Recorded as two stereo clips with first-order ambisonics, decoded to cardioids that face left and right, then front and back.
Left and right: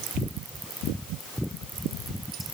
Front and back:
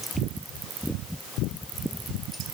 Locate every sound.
Only background noise.